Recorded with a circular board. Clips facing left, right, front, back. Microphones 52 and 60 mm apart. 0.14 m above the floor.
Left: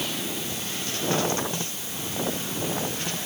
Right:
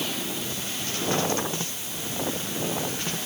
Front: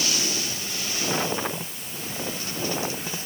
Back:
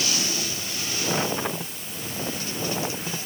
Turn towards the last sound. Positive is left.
No sound to turn to.